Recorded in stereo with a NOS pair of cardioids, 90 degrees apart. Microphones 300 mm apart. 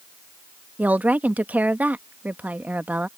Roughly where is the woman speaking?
Ahead.